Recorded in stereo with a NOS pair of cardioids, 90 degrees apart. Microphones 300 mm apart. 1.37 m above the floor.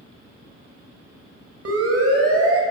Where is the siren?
55° right, 6 m.